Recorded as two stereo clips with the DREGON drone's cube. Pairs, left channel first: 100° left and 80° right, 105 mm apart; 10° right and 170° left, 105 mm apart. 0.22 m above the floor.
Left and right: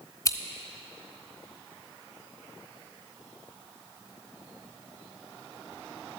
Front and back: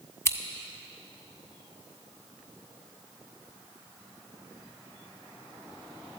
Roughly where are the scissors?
Ahead left.